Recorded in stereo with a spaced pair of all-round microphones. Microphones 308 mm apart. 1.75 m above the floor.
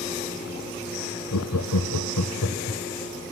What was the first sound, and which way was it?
Laughter, 70° left (ahead or behind).